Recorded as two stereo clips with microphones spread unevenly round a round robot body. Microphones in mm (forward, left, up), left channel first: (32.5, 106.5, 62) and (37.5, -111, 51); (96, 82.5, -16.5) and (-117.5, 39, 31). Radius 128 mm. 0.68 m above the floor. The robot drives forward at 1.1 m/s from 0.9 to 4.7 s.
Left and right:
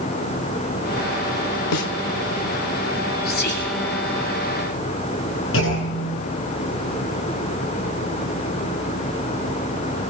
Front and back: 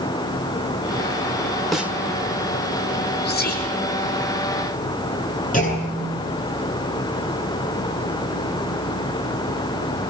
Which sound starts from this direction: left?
A snare drum, at 1.7 s.